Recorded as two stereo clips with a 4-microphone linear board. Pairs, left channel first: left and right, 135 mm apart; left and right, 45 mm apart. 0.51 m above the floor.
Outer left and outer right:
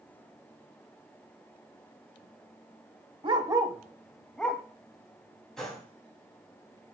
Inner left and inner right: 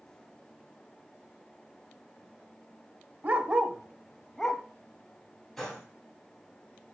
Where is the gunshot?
5° left (ahead or behind), 4.5 m.